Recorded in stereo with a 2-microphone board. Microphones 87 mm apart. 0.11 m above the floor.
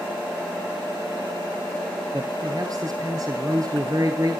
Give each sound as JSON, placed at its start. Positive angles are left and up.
{"t": 2.1, "sound": "a man speaking", "side_deg": -45, "distance_m": 2.0}